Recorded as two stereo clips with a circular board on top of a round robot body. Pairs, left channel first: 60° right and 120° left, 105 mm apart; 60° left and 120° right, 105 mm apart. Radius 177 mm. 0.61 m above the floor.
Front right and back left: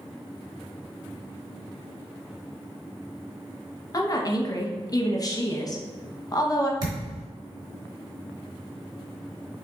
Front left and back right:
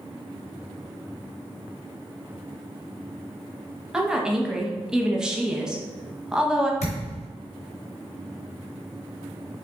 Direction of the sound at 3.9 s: 40° right.